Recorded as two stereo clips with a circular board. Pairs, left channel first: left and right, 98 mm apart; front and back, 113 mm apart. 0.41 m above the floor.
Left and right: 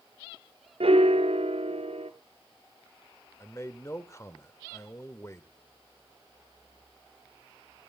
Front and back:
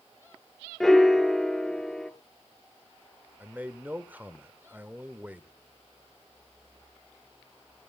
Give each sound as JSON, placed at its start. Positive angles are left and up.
{"t": 0.8, "sound": "a piano", "azimuth_deg": -90, "distance_m": 1.8}
{"t": 3.4, "sound": "a man speaking", "azimuth_deg": 115, "distance_m": 1.6}